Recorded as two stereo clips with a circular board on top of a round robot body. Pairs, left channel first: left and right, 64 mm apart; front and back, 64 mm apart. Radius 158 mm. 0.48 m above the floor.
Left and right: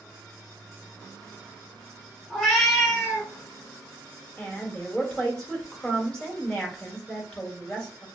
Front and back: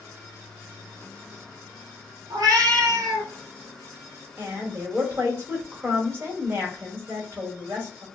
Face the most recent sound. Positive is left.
turn(degrees=160)